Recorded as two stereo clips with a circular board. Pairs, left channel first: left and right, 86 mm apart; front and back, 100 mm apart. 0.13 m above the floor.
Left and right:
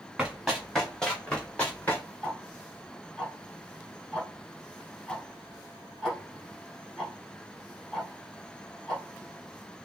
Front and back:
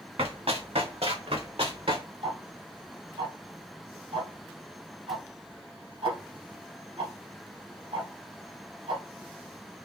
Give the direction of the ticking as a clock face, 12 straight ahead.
6 o'clock.